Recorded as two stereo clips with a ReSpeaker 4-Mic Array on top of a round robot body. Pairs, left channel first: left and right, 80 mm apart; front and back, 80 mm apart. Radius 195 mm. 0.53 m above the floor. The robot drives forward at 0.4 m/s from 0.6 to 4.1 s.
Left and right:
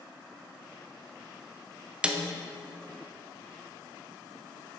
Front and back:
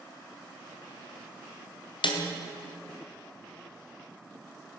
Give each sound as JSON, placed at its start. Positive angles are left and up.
{"t": 2.0, "sound": "a snare drum", "azimuth_deg": -10, "distance_m": 0.8}